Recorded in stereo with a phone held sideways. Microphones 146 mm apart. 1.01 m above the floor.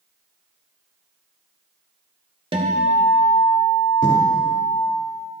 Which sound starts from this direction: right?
A guitar, at 2.5 s.